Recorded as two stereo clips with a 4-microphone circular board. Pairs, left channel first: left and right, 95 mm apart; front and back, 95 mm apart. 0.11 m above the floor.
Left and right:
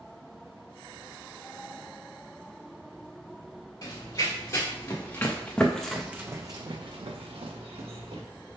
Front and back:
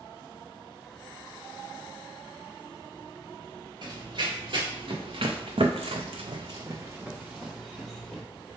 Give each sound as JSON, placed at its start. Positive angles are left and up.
{"t": 3.8, "sound": "running footsteps", "azimuth_deg": 135, "distance_m": 1.6}